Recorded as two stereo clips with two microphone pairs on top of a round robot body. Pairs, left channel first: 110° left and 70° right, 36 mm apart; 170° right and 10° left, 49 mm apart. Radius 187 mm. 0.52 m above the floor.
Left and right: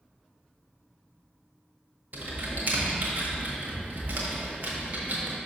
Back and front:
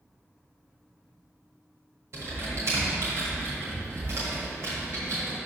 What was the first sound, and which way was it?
Typing on a keyboard, 30° right.